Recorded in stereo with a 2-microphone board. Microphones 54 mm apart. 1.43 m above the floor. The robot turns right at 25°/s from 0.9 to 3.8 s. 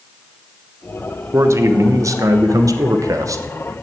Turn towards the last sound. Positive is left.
turn(degrees=-65)